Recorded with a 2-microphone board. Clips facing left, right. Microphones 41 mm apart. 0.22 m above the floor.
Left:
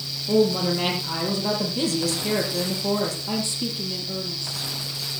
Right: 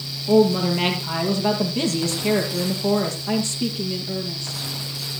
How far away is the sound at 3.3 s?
About 5 m.